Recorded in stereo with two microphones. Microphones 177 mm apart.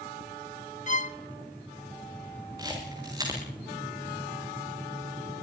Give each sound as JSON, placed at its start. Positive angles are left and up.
{"t": 0.9, "sound": "a violin", "side_deg": 45, "distance_m": 0.6}
{"t": 2.6, "sound": "a camera shutter", "side_deg": -20, "distance_m": 8.0}